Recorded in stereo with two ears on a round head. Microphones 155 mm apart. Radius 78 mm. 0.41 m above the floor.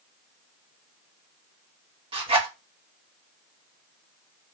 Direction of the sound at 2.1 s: 30° right (ahead or behind).